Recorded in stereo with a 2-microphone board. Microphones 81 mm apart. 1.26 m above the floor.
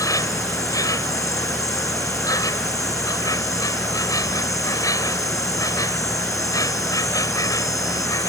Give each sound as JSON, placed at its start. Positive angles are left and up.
{"t": 0.0, "sound": "an insect", "side_deg": 45}